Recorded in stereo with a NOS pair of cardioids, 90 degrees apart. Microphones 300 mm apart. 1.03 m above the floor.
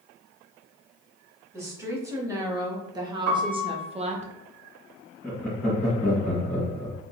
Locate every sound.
1.5 s a woman speaking: 10° right, 2.0 m; by 4.3 s 30° right, 0.7 m
3.3 s a piano: 60° right, 1.2 m
5.2 s laughter: 5° left, 1.4 m